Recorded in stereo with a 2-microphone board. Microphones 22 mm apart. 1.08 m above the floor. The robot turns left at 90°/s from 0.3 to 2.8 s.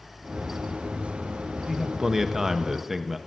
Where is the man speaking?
15° right (ahead or behind), 0.8 m; by 3.2 s 20° right (ahead or behind), 0.8 m.